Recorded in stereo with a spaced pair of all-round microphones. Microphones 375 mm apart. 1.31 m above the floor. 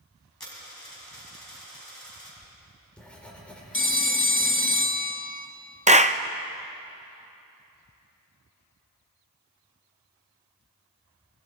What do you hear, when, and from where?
0.4 s a dropped coin: 75° left (ahead or behind), 5 m
2.4 s writing: 5° left (ahead or behind), 3.5 m
3.7 s a phone ringing: 35° left (ahead or behind), 1.2 m
5.9 s a clap: 20° right (ahead or behind), 0.6 m